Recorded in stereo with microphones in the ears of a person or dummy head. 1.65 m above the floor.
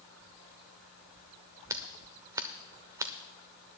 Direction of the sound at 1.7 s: 15° right (ahead or behind).